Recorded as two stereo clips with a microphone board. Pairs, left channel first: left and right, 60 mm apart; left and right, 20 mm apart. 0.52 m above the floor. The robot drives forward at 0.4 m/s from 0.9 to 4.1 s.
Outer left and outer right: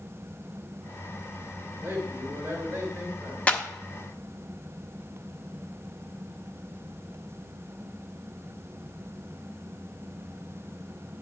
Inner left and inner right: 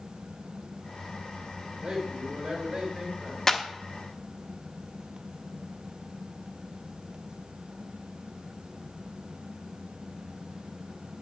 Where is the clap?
25° left (ahead or behind), 0.8 m.